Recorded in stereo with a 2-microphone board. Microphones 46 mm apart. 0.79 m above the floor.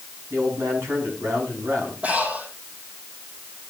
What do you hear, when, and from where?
0.3 s a man speaking: 85° right, 6 m
2.0 s breathing: 35° right (ahead or behind), 6 m